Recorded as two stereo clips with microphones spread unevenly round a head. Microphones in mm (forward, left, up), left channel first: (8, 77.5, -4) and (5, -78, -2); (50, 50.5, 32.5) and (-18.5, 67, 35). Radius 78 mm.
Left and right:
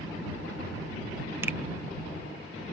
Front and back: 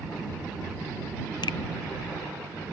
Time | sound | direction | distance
1.4 | a finger snap | 15° right | ?